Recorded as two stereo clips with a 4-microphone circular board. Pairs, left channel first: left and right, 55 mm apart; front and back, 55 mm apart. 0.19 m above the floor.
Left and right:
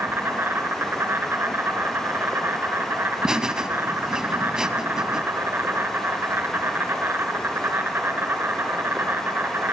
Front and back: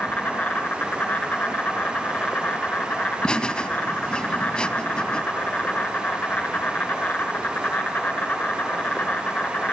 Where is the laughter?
35° right, 1.0 m.